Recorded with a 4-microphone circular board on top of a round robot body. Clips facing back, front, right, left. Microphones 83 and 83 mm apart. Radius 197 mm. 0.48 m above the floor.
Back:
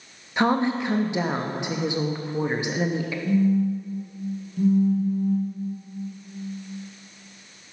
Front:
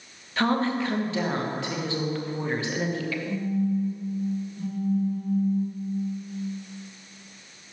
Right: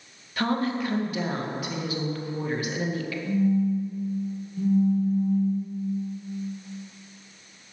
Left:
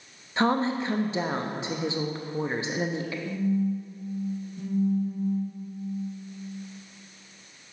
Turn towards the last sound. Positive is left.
turn(degrees=180)